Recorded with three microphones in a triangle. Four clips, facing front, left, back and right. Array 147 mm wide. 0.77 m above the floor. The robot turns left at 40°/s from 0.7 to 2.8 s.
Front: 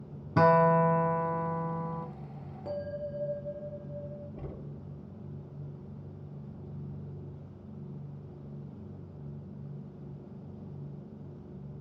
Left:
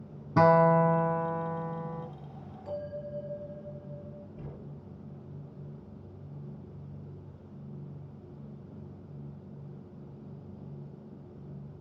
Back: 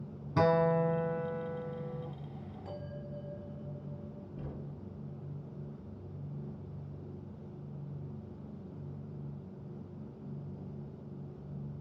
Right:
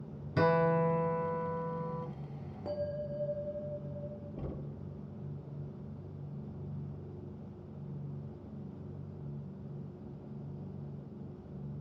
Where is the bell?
65° right, 2.5 m; by 4.3 s 70° right, 2.5 m.